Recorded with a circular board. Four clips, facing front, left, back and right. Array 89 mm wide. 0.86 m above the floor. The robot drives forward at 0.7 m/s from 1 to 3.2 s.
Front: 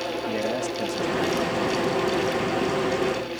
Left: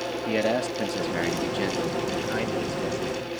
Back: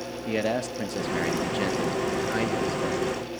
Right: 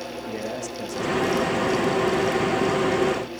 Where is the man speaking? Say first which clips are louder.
Left 8 dB, back 2 dB; 120° left, 1.1 m; by 3.2 s 165° left, 2 m.